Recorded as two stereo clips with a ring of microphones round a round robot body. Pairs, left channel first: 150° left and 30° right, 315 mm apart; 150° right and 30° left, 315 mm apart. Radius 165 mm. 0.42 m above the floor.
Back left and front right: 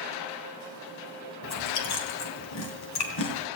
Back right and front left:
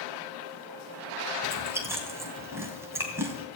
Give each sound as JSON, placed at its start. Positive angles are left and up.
{"t": 1.4, "sound": "chewing", "azimuth_deg": 110, "distance_m": 2.5}